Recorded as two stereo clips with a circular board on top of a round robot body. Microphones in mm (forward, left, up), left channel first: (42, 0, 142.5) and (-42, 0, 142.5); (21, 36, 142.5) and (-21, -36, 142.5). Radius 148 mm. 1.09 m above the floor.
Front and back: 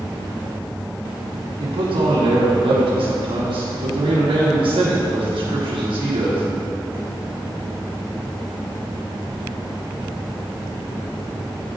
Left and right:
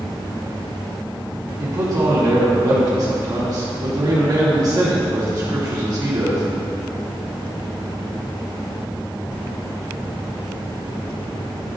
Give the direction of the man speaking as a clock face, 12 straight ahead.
6 o'clock.